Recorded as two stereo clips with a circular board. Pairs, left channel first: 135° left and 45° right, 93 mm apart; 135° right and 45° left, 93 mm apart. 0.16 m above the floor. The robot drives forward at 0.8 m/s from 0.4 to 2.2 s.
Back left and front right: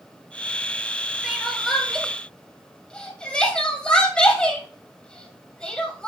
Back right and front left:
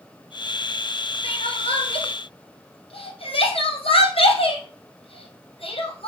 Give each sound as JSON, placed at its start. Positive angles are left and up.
{"t": 1.2, "sound": "crying", "azimuth_deg": -130, "distance_m": 1.7}